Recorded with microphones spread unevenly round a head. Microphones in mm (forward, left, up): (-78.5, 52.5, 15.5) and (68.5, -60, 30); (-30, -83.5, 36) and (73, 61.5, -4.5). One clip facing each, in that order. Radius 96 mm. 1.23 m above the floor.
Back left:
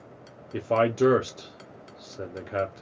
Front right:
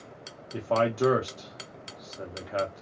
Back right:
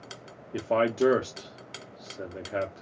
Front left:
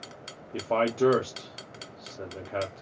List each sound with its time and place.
0.5 s a man speaking: 150° left, 0.6 m